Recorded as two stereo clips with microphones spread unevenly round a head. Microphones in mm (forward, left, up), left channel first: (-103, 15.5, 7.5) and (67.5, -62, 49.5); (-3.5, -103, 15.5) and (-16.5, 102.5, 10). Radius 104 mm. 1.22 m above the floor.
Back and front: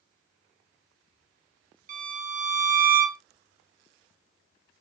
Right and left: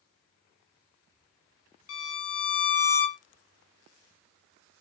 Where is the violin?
65° right, 0.8 m.